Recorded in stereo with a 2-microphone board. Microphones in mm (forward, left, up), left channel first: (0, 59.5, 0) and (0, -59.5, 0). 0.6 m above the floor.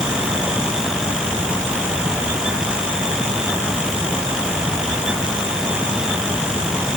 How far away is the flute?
I don't hear a flute.